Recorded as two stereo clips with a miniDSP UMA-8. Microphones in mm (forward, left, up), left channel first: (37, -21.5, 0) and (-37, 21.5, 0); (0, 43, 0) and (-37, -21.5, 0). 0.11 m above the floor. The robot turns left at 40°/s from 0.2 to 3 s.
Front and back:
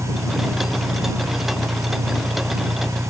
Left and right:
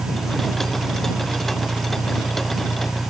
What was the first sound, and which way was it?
An engine running, 135° right.